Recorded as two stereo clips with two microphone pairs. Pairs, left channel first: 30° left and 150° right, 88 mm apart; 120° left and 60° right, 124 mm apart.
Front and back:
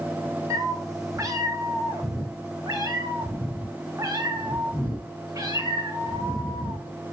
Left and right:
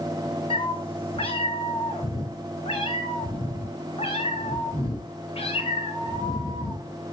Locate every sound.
0.5 s a cat meowing: 160° left, 2.0 m